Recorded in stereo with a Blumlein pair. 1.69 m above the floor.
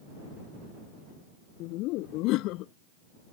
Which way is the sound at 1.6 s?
40° left.